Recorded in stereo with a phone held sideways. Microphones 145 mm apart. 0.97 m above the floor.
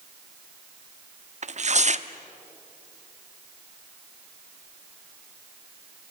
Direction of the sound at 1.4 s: 55° right (ahead or behind).